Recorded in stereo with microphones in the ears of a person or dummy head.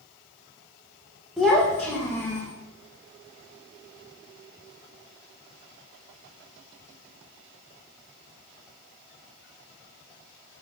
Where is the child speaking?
Centre (ahead or behind), 1.2 m; by 2.5 s 20° left (ahead or behind), 1.6 m.